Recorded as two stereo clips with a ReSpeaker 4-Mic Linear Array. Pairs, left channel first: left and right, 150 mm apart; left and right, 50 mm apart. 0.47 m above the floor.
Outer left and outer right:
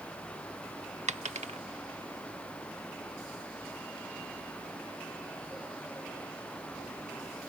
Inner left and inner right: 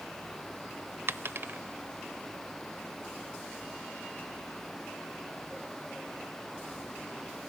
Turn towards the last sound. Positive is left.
turn(degrees=-50)  # may be behind; listen again after turning